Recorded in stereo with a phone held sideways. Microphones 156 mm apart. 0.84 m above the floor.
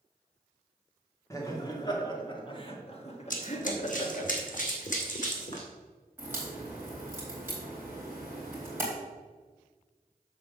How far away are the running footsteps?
About 1.7 m.